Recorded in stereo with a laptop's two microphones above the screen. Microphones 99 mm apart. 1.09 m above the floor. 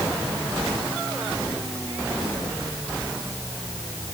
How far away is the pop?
I don't hear a pop.